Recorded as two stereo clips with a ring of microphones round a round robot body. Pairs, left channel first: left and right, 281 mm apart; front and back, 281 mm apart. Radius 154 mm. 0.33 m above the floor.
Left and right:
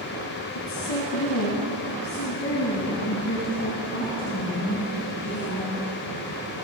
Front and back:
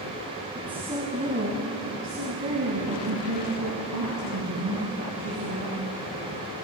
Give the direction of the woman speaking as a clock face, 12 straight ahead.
9 o'clock.